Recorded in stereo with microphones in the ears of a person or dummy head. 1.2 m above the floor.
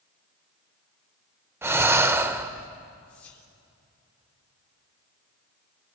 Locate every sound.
1.6 s breathing: 15° right (ahead or behind), 0.9 m
3.1 s whispering: 10° left (ahead or behind), 4 m